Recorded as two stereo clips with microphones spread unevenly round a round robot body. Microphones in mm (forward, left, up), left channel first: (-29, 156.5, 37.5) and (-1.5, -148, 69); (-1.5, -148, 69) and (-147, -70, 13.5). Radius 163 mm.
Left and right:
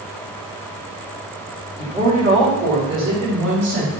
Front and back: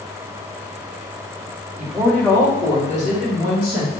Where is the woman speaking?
160° right, 1.4 m; by 3.9 s 60° right, 2.5 m.